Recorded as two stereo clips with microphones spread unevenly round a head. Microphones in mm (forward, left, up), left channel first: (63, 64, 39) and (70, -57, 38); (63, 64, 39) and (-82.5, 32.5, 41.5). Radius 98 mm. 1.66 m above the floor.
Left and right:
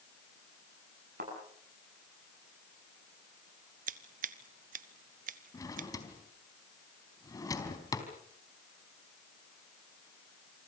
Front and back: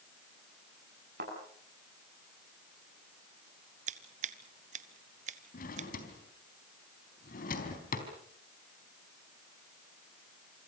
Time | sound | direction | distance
1.2 | a thud | 120° right | 9 m
3.9 | scissors | 115° right | 0.9 m
5.5 | a drawer | 35° left | 4 m